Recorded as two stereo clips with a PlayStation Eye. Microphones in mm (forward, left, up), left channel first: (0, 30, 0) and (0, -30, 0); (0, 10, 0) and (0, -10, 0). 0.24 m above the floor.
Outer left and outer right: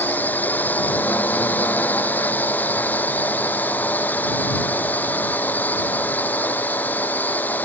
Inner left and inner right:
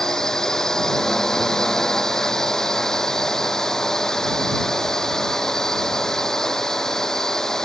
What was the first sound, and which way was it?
A drone, 30° left (ahead or behind).